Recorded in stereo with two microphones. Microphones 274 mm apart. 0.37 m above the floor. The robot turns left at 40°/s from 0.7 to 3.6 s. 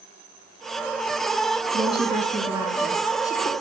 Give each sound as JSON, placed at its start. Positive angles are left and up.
{"t": 1.7, "sound": "a woman speaking", "azimuth_deg": -130, "distance_m": 4.5}